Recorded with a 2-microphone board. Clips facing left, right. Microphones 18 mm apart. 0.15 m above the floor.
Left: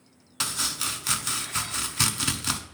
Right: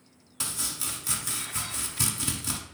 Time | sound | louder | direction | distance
0.4 | chopping | left 5 dB | 40° left (ahead or behind) | 0.8 m